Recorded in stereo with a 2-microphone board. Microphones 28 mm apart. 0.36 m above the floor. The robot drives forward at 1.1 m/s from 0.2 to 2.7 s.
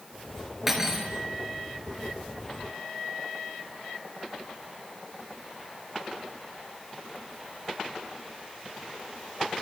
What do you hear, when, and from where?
0.7 s cutlery clinking: 15° right (ahead or behind), 3.5 m